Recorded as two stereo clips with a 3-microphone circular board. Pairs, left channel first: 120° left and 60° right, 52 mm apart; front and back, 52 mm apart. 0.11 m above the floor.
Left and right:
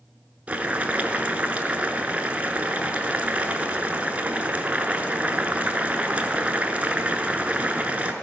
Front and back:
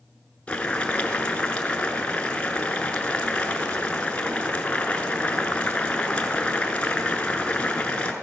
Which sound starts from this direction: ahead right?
Boiling, at 0.5 s.